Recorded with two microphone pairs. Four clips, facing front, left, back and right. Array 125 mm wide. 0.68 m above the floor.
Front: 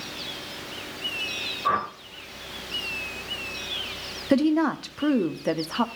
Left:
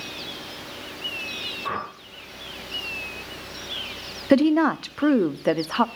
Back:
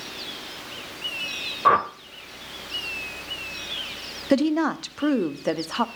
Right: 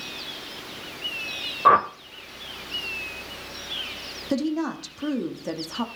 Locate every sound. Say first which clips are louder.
1.6 s a whoosh: right 13 dB, back 6 dB; 115° right, 1.3 m
4.3 s a woman speaking: left 8 dB, even; 110° left, 0.7 m